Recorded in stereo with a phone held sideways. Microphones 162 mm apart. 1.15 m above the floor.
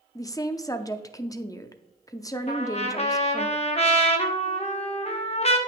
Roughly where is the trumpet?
Left.